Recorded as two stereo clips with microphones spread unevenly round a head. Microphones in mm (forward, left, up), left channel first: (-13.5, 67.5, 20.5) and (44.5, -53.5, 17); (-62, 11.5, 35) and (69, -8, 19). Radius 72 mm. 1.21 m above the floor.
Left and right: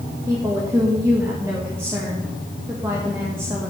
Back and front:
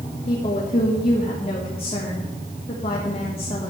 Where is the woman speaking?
135° right, 1.5 m.